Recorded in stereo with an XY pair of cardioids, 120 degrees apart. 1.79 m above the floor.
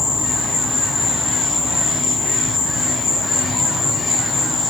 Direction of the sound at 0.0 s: 35° left.